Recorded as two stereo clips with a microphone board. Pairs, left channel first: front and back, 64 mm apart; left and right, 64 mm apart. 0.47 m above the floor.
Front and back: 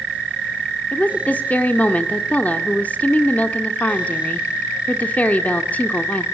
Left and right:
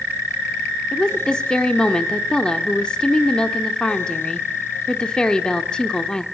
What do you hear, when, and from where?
0.9 s a woman speaking: 25° left, 1.1 m